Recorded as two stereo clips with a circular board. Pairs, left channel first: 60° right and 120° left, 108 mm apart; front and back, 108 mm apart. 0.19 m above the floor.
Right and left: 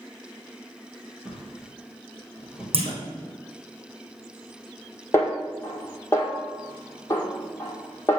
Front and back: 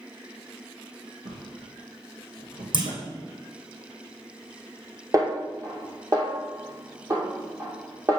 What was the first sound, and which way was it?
A drawer, 155° right.